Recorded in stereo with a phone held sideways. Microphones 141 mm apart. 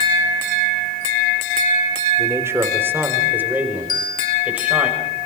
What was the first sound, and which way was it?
A man speaking, 20° right (ahead or behind).